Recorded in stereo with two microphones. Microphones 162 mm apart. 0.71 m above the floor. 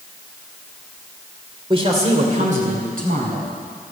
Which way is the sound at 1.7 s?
35° right (ahead or behind).